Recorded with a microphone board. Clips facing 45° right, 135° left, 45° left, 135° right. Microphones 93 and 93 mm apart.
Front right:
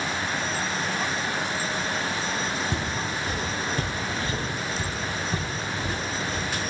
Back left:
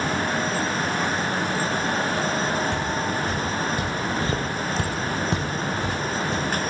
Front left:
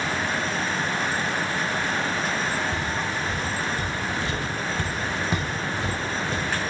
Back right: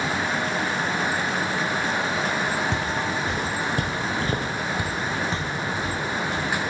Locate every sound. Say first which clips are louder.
2.7 s footsteps: back left 4 dB, back right 2 dB; 120° right, 3 m; by 6.5 s 105° left, 3.5 m